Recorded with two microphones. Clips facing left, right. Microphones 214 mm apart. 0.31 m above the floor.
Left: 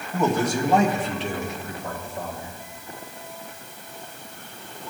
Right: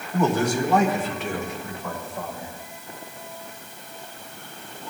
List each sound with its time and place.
0.1 s a man speaking: 10° left (ahead or behind), 1.6 m; by 2.5 s 40° left (ahead or behind), 4.5 m